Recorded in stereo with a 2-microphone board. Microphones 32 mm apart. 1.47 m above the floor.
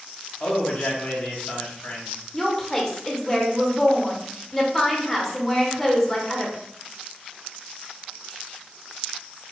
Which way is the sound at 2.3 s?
10° left (ahead or behind).